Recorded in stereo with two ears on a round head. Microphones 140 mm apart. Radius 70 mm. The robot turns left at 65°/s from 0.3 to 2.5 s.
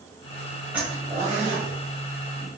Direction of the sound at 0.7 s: 10° right (ahead or behind).